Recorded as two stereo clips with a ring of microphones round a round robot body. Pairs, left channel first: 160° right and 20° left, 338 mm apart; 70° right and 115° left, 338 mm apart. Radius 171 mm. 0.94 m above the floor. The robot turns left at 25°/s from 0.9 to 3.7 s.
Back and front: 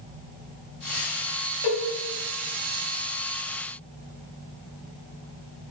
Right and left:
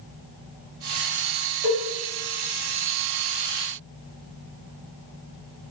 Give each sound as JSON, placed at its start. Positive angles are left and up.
{"t": 1.6, "sound": "a cowbell", "azimuth_deg": -160, "distance_m": 1.8}